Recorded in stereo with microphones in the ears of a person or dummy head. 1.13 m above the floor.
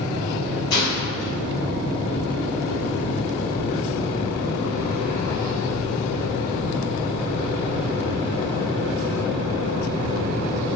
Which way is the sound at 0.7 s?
50° left (ahead or behind).